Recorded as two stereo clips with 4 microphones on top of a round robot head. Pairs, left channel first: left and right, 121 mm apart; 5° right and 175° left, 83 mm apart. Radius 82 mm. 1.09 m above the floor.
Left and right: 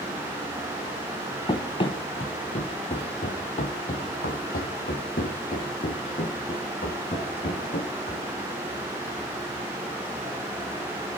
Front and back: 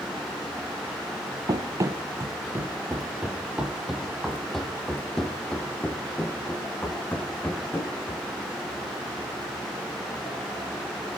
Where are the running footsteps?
140° left, 1.8 m; by 8.3 s 65° left, 4 m.